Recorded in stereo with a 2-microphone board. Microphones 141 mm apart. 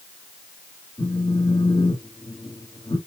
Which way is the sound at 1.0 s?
30° left (ahead or behind).